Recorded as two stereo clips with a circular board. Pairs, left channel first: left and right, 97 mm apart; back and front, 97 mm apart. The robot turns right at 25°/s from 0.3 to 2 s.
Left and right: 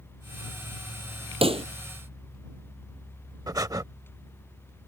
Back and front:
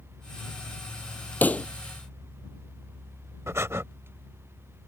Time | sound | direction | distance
1.4 | a pop | 110° right | ?
3.5 | breathing | 55° right | ?